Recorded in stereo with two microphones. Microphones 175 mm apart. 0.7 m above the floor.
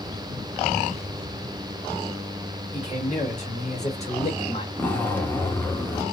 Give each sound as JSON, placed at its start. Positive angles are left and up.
{"t": 2.7, "sound": "a man speaking", "side_deg": 45, "distance_m": 1.6}
{"t": 4.8, "sound": "a zipper", "side_deg": 10, "distance_m": 0.7}